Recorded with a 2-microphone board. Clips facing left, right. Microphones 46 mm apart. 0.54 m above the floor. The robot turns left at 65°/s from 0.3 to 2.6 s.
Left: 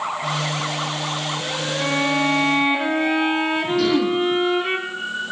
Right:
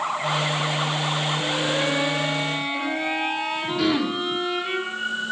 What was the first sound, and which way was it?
A violin, 130° left.